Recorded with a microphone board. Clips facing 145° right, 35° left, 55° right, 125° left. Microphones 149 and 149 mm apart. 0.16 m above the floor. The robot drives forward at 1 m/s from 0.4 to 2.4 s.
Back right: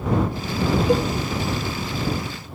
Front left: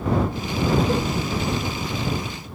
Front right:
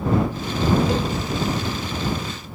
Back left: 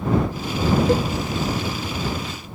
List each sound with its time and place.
0.9 s a cowbell: 145° left, 1.1 m; by 1.1 s 150° left, 1.3 m